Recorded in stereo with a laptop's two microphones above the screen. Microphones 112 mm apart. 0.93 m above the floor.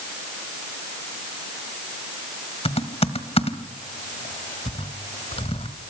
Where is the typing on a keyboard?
65° left (ahead or behind), 1.6 m.